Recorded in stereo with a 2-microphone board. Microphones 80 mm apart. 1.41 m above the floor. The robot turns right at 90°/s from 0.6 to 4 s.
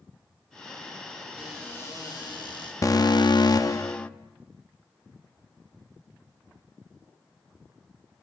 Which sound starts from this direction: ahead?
A cupboard door, at 1.4 s.